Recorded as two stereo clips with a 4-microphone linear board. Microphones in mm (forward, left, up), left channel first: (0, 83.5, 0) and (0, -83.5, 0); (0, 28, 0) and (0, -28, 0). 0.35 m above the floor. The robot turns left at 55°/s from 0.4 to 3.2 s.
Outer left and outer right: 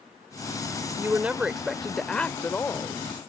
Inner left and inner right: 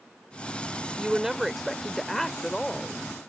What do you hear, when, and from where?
1.0 s a woman speaking: 15° right (ahead or behind); by 3.0 s 20° left (ahead or behind)